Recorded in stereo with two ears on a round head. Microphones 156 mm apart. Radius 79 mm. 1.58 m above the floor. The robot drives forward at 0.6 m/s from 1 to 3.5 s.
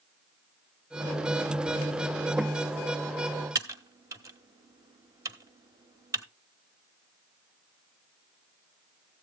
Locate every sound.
3.5 s typing on a keyboard: 20° right (ahead or behind), 1.2 m